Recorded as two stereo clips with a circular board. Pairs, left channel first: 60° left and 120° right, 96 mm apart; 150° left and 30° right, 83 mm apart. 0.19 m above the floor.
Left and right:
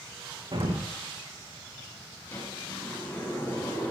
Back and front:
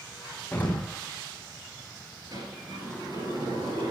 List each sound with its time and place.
0.5 s an explosion: 140° right, 3.5 m
2.3 s a sliding door: 5° right, 4 m